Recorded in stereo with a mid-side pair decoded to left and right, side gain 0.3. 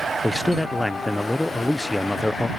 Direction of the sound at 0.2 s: 20° left.